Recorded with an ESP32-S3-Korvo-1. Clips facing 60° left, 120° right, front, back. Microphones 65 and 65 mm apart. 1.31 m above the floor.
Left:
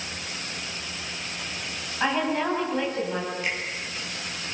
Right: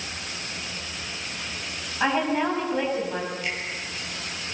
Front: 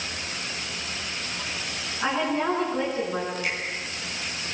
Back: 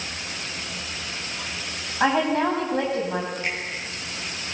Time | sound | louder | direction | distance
2.0 | a woman speaking | right 2 dB, back 5 dB | 155° left | 8 m
3.4 | a finger snap | left 1 dB, back 1 dB | 125° left | 9.5 m